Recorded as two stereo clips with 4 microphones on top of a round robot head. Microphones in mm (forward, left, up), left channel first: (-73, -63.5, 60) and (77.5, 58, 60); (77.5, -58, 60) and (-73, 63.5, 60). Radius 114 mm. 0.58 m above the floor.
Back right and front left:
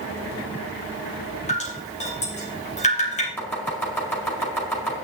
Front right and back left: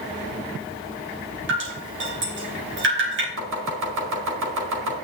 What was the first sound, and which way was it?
Dripping, 165° left.